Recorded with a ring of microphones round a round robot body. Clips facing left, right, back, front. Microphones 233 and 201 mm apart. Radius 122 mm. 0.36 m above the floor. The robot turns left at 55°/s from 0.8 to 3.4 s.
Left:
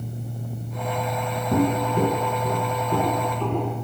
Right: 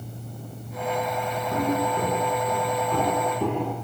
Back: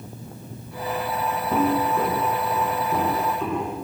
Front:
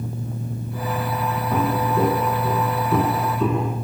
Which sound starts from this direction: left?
Footsteps, at 1.5 s.